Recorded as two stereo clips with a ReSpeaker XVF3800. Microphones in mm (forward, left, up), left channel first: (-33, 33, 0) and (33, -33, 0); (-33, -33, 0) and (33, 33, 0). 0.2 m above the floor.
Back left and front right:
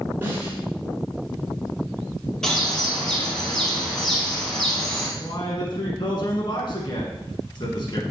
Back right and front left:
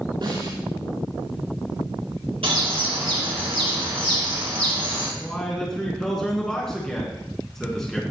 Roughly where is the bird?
Ahead left.